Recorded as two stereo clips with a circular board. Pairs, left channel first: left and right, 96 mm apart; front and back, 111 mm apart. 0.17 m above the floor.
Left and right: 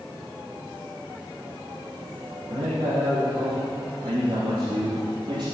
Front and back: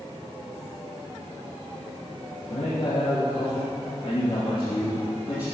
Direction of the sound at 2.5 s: 35° right.